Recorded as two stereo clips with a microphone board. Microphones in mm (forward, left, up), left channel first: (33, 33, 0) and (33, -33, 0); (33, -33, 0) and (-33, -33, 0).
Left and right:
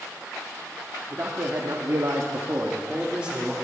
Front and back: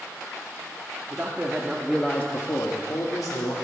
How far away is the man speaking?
About 1.7 m.